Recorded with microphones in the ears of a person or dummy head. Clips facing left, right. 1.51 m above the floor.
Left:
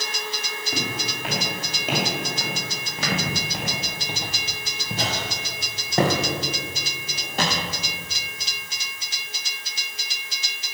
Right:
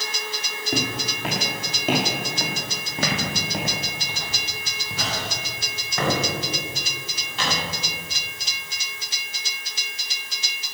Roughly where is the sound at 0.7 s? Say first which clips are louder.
Right 4 dB; right.